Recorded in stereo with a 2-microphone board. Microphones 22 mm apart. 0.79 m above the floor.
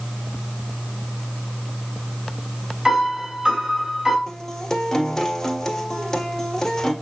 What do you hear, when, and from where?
2.9 s a piano: 20° right (ahead or behind), 4 m
4.3 s a guitar: 25° left (ahead or behind), 1.7 m